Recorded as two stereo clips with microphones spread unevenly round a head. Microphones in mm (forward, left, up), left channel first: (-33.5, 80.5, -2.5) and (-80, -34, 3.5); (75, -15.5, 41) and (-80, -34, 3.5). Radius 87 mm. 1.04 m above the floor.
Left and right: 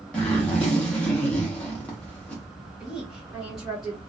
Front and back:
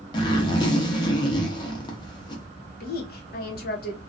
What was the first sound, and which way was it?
A zipper, 15° right.